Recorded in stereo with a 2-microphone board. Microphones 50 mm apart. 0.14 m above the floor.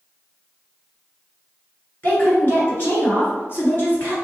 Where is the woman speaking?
45° left (ahead or behind), 1.7 m; by 4.2 s 40° left (ahead or behind), 1.7 m.